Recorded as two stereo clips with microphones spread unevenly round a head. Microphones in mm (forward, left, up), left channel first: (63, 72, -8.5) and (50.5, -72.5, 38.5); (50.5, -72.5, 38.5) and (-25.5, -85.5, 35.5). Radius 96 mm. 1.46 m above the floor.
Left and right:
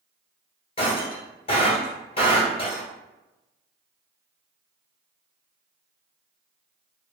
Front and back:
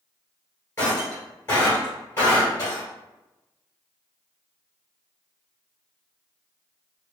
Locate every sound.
0.8 s breaking glass: 40° left, 1.6 m